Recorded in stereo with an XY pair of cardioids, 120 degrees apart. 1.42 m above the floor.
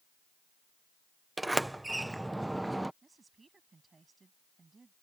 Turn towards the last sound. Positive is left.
turn(degrees=-25)